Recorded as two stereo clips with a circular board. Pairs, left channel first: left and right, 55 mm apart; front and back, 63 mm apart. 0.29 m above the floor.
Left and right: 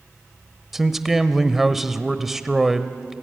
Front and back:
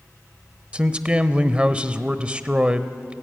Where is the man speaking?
165° right, 0.9 m.